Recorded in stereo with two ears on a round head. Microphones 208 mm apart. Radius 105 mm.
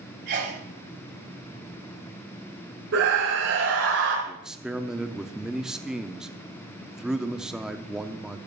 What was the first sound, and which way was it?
A sneeze, 50° right (ahead or behind).